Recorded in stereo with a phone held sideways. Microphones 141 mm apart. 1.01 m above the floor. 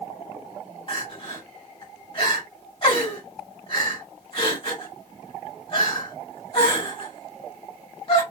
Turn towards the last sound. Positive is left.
turn(degrees=40)  # may be behind; listen again after turning